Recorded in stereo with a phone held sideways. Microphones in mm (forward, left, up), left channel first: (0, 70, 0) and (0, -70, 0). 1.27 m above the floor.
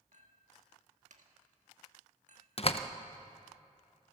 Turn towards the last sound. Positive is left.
turn(degrees=45)  # may be behind; listen again after turning